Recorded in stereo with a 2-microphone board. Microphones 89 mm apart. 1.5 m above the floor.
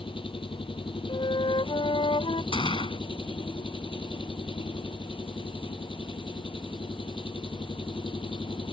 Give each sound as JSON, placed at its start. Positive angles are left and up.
{"t": 0.0, "sound": "an engine running", "side_deg": 75}
{"t": 1.1, "sound": "a flute", "side_deg": 80}
{"t": 2.5, "sound": "a gunshot", "side_deg": 75}